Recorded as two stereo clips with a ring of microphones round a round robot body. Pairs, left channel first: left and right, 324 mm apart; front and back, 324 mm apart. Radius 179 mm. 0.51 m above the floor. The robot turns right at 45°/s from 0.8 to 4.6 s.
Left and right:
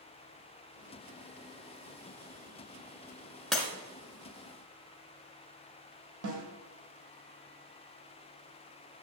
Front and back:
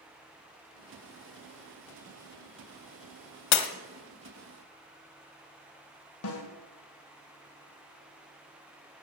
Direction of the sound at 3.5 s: Straight ahead.